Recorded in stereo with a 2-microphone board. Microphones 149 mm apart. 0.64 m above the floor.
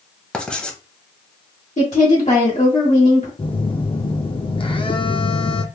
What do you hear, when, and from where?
0.3 s writing: 5° left (ahead or behind), 0.7 m
1.8 s a woman speaking: 50° left (ahead or behind), 1.4 m
3.4 s a phone buzzing: 35° left (ahead or behind), 0.5 m